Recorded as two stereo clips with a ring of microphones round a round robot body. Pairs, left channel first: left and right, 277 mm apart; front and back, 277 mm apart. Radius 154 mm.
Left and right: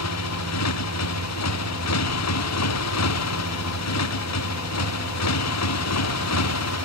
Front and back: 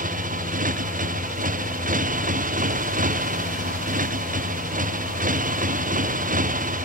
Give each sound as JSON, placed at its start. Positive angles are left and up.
{"t": 0.0, "sound": "a motorcycle", "azimuth_deg": 120}